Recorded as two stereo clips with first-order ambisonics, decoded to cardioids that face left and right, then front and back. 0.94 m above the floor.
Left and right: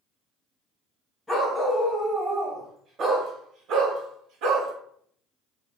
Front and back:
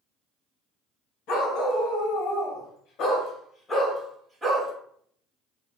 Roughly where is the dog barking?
Ahead.